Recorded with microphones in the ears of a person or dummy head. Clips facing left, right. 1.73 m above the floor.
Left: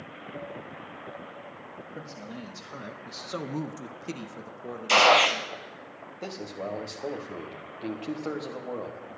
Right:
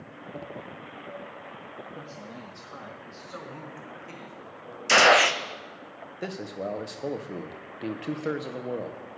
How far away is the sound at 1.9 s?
About 1.5 m.